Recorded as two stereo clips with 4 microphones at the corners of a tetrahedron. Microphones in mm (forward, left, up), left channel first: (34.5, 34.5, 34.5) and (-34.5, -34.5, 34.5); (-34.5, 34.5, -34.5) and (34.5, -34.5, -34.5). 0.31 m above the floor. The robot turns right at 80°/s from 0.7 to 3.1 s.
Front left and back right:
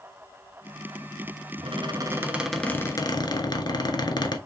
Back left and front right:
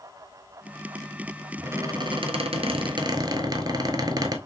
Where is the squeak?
115° right, 0.7 m; by 4.4 s straight ahead, 0.7 m.